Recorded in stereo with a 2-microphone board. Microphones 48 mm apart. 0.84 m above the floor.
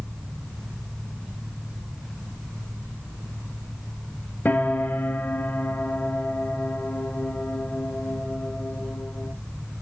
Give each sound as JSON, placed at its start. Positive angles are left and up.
{"t": 4.5, "sound": "a piano", "side_deg": 45, "distance_m": 0.9}